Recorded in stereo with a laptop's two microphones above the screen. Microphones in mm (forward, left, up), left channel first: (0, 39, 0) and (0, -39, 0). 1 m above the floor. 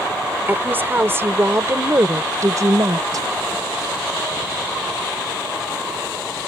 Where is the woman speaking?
25° right (ahead or behind); by 3.3 s 50° right (ahead or behind).